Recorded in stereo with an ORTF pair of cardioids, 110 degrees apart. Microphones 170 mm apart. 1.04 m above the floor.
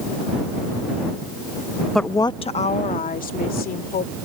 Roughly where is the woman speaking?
Ahead.